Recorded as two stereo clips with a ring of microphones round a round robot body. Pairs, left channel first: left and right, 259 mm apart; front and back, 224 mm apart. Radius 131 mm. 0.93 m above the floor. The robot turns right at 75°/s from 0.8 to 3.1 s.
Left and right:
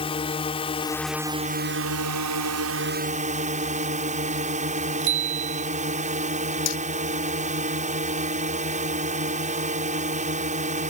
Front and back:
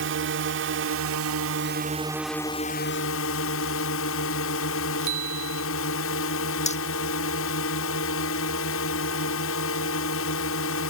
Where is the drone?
160° left; by 10.9 s 30° right.